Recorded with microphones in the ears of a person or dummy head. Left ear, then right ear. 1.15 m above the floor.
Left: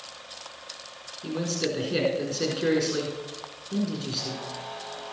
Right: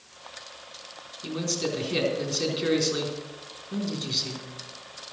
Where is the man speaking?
25° right (ahead or behind), 3.5 m.